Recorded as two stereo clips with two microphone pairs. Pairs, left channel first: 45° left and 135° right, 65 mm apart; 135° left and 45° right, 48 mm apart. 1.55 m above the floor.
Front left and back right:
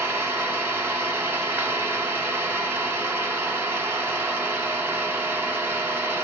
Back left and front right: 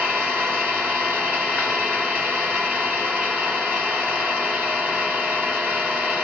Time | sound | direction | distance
0.0 | an engine running | 95° right | 1.5 m